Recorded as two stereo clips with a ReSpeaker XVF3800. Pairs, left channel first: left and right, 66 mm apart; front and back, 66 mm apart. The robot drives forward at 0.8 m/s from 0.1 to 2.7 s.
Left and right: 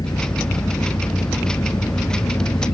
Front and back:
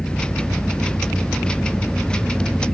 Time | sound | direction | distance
0.0 | an engine running | 75° left | ?